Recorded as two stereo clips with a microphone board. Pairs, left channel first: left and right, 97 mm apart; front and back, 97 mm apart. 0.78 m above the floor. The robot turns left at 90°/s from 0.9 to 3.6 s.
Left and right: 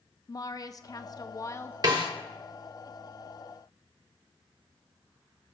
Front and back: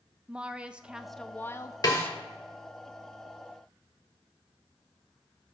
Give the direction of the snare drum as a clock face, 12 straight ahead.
2 o'clock.